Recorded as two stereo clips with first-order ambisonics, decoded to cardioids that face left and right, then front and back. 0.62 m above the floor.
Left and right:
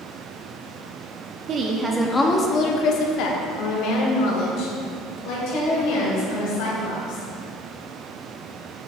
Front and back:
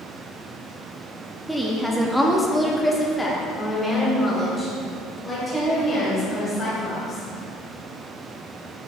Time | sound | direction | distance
1.5 | a woman speaking | 90° right | 0.6 m